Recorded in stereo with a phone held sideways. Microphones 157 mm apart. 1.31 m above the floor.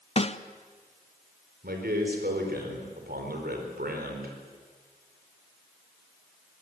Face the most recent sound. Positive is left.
turn(degrees=-80)